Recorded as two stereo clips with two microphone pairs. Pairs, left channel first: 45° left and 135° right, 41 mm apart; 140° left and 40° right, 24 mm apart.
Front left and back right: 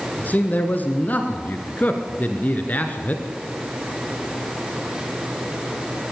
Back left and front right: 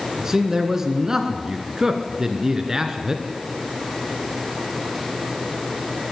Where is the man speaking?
20° left, 2 m.